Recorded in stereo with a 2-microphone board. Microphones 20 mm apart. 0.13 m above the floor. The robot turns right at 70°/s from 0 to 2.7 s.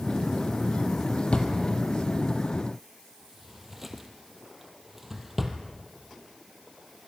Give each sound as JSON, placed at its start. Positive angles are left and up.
{"t": 1.3, "sound": "a drawer", "side_deg": 70, "distance_m": 2.0}